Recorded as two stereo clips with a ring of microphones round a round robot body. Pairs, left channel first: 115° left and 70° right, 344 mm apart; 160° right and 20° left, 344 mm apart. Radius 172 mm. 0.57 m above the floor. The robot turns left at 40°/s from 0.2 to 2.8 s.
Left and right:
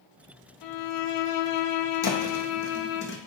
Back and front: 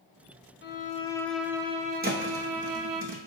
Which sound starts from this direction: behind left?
A violin, at 0.6 s.